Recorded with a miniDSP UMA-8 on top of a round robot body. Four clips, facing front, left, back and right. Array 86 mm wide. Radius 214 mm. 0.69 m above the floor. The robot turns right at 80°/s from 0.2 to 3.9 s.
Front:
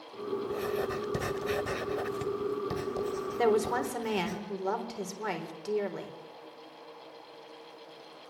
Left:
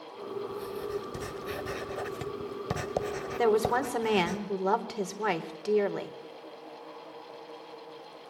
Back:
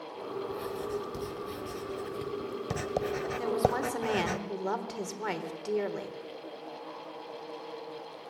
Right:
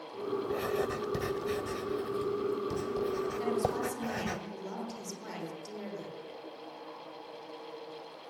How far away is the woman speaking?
About 4 m.